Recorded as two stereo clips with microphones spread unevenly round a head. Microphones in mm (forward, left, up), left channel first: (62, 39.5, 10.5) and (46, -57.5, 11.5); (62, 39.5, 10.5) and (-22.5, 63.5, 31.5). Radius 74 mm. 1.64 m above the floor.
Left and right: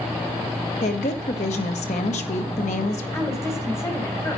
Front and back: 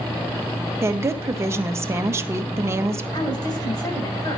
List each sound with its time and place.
0.8 s a woman speaking: 110° left, 1.4 m
3.1 s a woman speaking: 20° left, 7 m